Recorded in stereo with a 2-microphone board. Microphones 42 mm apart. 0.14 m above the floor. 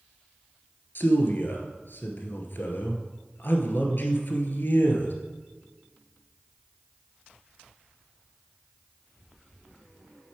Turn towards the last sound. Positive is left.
turn(degrees=55)  # may be behind; listen again after turning